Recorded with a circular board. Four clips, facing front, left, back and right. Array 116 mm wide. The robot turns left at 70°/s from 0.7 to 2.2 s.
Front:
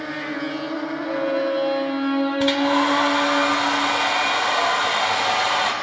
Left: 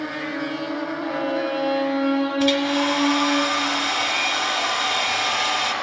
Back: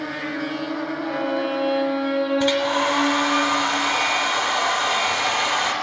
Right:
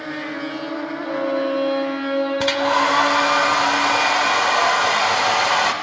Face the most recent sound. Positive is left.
turn(degrees=-80)